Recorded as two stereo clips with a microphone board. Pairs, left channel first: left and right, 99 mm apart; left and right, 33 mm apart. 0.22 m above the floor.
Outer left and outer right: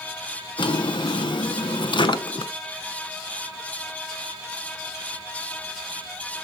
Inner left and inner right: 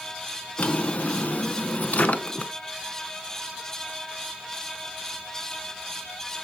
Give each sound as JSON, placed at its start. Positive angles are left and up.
{"t": 0.6, "sound": "a drawer", "side_deg": 55, "distance_m": 0.6}